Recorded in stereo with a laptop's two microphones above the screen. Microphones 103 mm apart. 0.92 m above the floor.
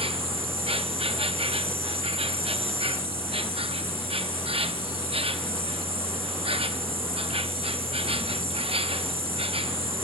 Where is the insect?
65° right (ahead or behind), 0.7 m.